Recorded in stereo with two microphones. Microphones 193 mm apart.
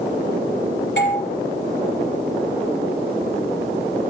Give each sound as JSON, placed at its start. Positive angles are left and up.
{"t": 1.0, "sound": "a doorbell", "side_deg": 70, "distance_m": 5.0}